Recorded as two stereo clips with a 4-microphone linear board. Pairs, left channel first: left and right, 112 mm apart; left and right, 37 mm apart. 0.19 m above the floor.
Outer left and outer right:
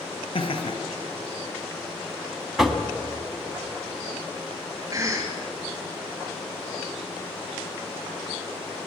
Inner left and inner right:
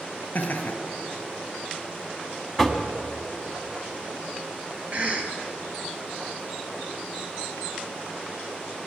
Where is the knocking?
Centre (ahead or behind), 1.4 m.